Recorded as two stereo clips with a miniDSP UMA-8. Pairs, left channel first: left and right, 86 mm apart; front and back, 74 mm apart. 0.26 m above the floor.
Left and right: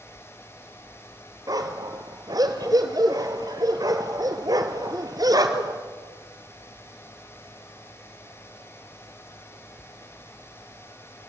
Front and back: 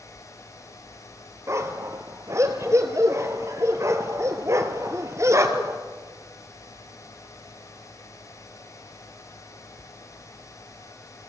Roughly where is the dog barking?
Behind right.